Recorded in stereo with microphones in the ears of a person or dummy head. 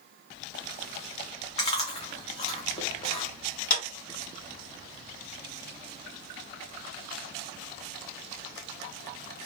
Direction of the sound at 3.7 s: 50° left (ahead or behind).